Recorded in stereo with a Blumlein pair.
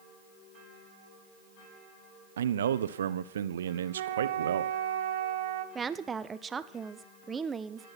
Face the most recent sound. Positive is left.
turn(degrees=-15)